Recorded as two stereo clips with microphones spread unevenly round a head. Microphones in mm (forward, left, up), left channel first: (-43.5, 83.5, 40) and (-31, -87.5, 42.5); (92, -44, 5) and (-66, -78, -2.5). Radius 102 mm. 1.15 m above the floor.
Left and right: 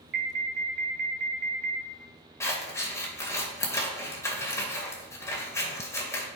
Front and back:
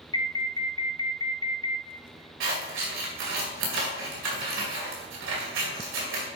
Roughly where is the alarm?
Ahead right.